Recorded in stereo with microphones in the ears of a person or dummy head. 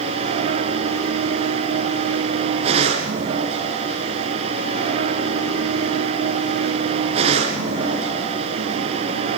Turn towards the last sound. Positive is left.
turn(degrees=-40)  # may be behind; listen again after turning